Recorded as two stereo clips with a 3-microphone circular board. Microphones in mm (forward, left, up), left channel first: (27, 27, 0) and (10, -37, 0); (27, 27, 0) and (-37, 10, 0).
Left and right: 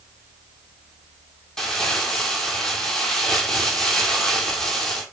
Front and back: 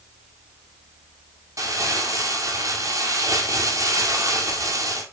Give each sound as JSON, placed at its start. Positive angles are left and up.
{"t": 1.6, "sound": "crumpling", "azimuth_deg": 155, "distance_m": 1.6}